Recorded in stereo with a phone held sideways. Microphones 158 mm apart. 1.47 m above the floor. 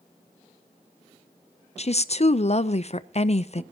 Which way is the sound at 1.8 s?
45° left (ahead or behind).